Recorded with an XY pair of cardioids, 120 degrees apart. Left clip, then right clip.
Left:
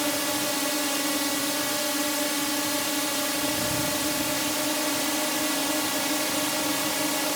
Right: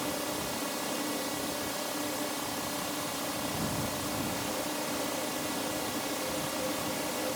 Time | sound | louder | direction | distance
0.0 | a drone | left 7 dB | 55° left | ?